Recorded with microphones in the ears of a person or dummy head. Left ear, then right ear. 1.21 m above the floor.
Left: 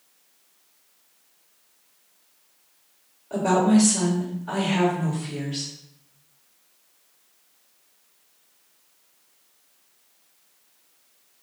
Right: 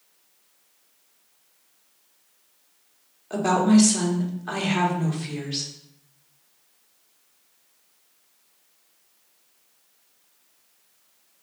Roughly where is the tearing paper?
No tearing paper in this recording.